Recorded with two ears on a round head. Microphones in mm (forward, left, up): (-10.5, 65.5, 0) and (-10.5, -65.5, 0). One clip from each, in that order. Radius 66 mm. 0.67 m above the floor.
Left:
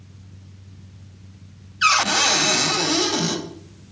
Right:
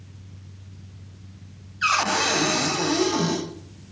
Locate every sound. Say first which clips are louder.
1.8 s a cupboard door: left 4 dB; 50° left (ahead or behind), 3 m